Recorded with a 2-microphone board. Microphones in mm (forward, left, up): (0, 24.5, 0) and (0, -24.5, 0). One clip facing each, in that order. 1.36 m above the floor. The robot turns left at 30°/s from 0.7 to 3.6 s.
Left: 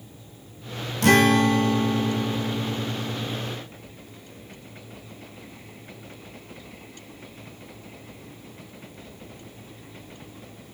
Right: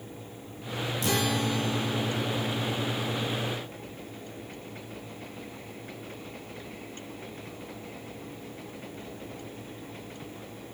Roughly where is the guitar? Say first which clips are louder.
Left 12 dB; left.